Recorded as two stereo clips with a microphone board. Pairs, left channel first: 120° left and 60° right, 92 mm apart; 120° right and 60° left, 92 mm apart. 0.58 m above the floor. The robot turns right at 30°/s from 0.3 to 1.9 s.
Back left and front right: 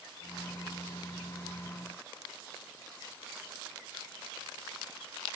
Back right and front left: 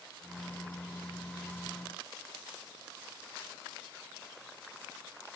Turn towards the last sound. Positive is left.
No sound to turn to.